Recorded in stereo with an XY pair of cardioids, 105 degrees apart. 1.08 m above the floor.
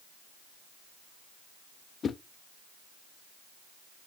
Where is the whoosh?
45° left, 1.0 m.